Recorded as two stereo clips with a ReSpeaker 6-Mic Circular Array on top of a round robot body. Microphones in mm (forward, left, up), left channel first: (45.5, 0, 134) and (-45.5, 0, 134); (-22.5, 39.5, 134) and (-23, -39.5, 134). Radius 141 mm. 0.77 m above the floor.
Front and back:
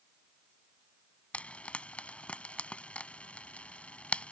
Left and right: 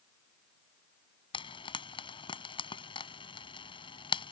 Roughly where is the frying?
Left.